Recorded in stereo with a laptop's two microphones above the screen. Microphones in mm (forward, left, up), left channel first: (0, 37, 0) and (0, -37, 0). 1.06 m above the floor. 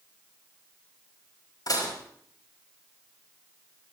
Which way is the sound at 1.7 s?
65° left (ahead or behind).